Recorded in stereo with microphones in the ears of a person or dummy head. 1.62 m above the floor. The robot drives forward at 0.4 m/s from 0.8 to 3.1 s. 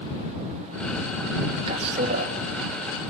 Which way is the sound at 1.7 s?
35° right (ahead or behind).